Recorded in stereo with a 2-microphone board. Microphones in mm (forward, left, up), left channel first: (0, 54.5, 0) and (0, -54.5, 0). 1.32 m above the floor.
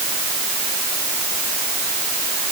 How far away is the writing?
I don't hear writing.